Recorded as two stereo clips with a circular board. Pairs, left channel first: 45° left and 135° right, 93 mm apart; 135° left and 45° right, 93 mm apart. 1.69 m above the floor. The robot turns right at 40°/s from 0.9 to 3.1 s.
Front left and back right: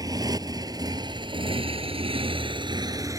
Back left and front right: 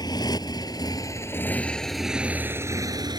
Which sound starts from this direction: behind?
A motorcycle, at 0.0 s.